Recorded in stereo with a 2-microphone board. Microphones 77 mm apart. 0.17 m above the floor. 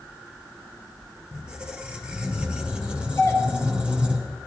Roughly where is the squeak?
Centre.